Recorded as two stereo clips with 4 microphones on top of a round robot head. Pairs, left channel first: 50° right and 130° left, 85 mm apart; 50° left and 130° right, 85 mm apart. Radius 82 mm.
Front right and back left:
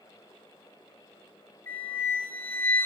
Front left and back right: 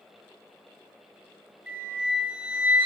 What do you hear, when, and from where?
1.7 s a flute: 70° right, 0.6 m